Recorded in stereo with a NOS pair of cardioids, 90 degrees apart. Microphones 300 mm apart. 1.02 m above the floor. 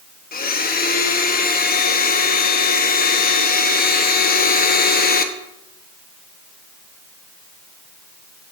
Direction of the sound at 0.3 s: 30° left.